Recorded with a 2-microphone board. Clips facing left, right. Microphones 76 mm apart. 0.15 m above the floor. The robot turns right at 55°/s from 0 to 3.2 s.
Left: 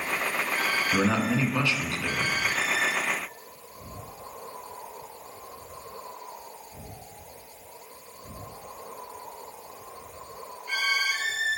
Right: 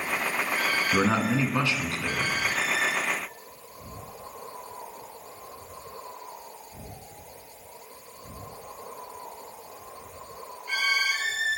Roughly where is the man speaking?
Right.